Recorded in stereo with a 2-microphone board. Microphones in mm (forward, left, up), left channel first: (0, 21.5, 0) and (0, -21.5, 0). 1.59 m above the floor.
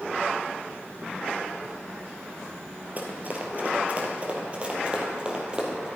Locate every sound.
3.0 s running footsteps: 40° right (ahead or behind), 2 m; by 5.9 s 20° right (ahead or behind), 3 m